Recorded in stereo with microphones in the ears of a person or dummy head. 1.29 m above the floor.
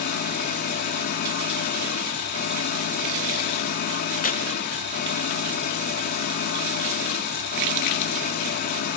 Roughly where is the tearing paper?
Left.